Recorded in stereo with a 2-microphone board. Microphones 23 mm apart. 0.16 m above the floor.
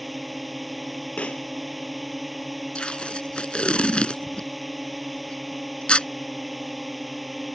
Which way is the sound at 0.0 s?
Centre (ahead or behind).